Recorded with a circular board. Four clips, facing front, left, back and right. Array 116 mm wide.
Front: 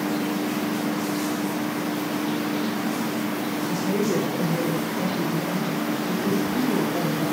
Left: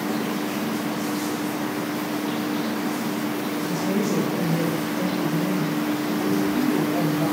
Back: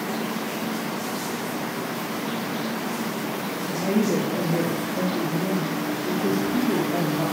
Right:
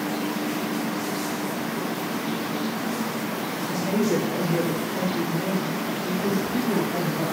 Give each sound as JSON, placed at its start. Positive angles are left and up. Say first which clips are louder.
{"t": 3.7, "sound": "a woman speaking", "louder": "right 2 dB, back 3 dB", "azimuth_deg": -150, "distance_m": 9.0}